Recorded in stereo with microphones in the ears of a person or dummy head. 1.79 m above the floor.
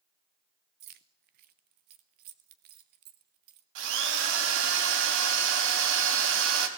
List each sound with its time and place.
0.8 s keys jangling: 35° right (ahead or behind), 1.0 m
3.8 s a drill: 70° right (ahead or behind), 3 m